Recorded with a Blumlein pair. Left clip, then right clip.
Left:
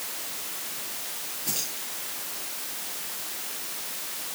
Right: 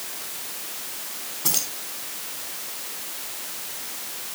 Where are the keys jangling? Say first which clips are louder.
Right 6 dB; 50° right, 4.5 m.